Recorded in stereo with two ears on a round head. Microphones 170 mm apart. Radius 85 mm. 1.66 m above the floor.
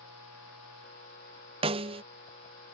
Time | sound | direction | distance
1.6 | a snare drum | 30° right (ahead or behind) | ?